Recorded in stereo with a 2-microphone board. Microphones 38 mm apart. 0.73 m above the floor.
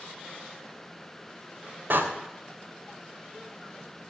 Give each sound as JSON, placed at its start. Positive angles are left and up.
{"t": 1.9, "sound": "a door slam", "side_deg": -70, "distance_m": 2.5}